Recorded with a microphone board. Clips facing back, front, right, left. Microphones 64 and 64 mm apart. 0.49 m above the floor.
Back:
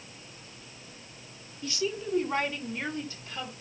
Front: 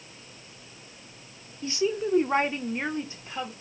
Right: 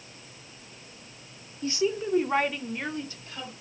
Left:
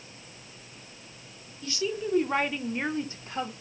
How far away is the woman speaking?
About 1.1 m.